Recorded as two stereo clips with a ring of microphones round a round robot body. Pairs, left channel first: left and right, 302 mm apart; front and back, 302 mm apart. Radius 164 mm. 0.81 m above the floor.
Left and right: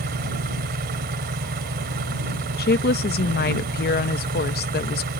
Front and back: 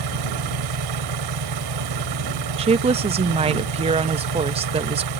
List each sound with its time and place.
0.0 s an engine running: 155° right
2.6 s a woman speaking: 120° left